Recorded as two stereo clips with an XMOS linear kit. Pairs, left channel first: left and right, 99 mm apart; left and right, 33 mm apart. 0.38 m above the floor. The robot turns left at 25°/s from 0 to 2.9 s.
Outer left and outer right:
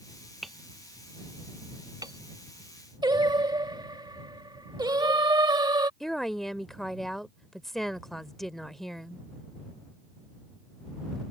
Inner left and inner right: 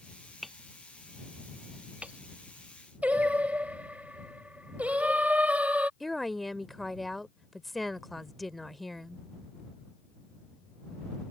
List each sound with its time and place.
0.4 s hammering: centre (ahead or behind); by 2.2 s 45° right (ahead or behind)
3.0 s singing: 50° right (ahead or behind)
6.0 s a woman speaking: 5° left (ahead or behind)